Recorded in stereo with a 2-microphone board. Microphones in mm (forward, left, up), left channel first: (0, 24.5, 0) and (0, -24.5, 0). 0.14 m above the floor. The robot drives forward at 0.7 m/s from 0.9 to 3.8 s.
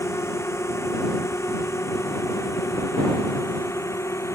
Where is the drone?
70° left (ahead or behind); by 4.3 s 85° left.